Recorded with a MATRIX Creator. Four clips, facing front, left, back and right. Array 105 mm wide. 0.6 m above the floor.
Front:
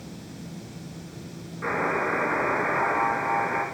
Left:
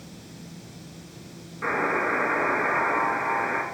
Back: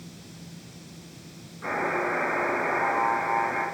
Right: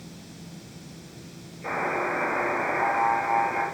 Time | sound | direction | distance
1.6 | a buzzer | 70° left | 5.5 m